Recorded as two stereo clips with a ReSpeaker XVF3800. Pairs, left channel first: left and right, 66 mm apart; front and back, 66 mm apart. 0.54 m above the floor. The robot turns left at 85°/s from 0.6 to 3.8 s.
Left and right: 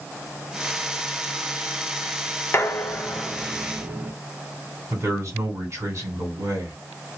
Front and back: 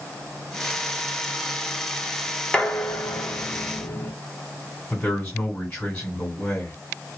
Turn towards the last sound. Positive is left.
turn(degrees=-55)